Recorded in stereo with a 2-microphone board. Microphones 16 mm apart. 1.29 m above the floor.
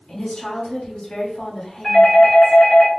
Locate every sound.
0.1 s a woman speaking: 80° left, 2 m
1.8 s a doorbell: 30° left (ahead or behind), 1.9 m